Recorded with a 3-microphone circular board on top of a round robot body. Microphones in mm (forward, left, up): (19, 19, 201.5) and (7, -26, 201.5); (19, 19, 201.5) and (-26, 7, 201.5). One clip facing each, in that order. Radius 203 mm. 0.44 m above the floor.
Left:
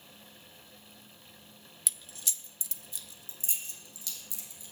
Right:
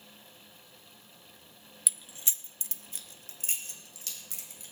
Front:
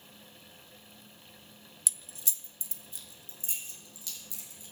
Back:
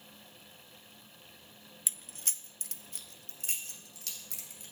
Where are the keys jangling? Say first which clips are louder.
Even, front 1 dB; 175° left, 0.7 m; by 4.7 s 140° right, 3 m.